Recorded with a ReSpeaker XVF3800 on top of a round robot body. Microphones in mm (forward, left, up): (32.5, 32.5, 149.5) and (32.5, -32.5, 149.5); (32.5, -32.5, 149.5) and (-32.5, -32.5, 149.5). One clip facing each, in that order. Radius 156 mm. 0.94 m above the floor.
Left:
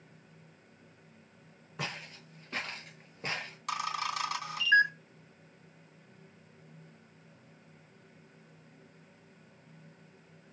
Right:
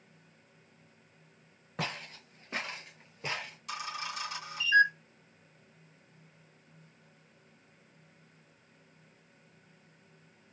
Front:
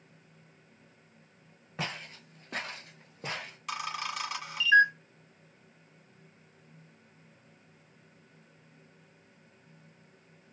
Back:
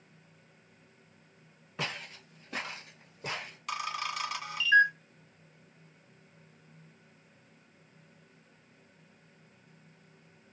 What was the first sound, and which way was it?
Footsteps, 60° right.